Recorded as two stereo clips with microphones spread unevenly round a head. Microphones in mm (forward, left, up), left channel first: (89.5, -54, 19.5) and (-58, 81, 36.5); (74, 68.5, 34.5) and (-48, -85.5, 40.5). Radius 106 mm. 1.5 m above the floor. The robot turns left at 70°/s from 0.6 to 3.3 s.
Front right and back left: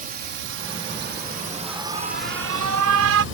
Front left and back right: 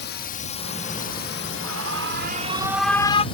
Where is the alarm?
135° right; by 3.2 s 115° left.